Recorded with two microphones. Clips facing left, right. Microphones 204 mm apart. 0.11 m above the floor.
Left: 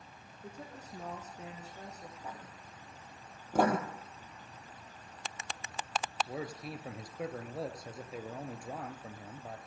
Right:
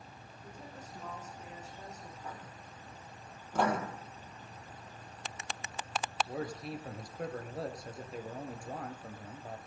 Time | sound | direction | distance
0.4 | a woman speaking | 75° left (ahead or behind) | 5.5 m
2.2 | writing | 20° left (ahead or behind) | 8.5 m
3.5 | writing | 45° left (ahead or behind) | 3 m
6.3 | a man speaking | 5° left (ahead or behind) | 1.5 m